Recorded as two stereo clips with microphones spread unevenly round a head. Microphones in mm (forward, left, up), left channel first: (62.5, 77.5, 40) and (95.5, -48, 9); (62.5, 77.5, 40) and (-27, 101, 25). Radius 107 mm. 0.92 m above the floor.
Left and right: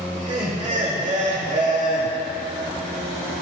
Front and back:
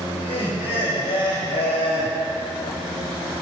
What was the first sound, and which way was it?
Laughter, 60° right.